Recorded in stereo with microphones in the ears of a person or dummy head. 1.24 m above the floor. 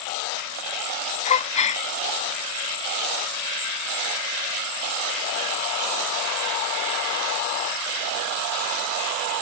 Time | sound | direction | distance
1.2 | a gasp | 35° left (ahead or behind) | ?